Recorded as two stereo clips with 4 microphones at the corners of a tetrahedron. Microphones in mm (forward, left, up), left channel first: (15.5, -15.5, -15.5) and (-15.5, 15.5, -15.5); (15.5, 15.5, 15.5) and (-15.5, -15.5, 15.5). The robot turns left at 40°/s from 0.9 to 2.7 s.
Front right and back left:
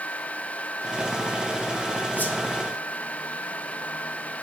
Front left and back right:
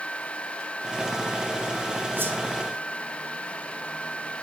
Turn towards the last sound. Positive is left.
turn(degrees=-115)